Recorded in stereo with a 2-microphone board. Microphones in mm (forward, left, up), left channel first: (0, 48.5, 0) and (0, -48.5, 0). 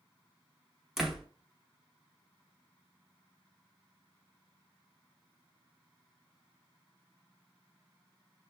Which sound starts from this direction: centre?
A door slam, at 1.0 s.